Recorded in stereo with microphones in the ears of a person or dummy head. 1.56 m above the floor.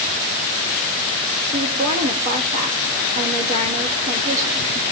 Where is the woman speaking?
40° right (ahead or behind), 3.5 m.